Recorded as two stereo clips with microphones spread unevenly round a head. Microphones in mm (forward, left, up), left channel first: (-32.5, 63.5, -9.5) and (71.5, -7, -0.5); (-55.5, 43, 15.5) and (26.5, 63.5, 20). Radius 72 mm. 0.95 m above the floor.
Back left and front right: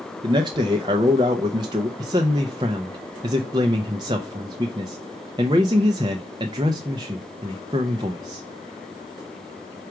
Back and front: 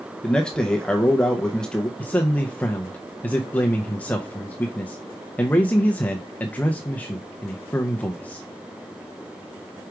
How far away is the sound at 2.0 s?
About 0.6 m.